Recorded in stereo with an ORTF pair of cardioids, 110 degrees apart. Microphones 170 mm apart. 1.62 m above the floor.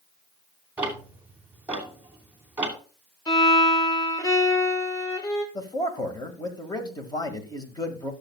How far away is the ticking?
About 3 m.